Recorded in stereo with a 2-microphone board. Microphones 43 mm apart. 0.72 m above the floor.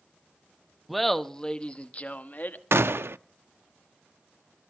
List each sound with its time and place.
0.9 s laughter: centre (ahead or behind), 0.9 m; by 2.6 s 45° left (ahead or behind), 1.2 m
2.7 s a gunshot: 65° right (ahead or behind), 0.5 m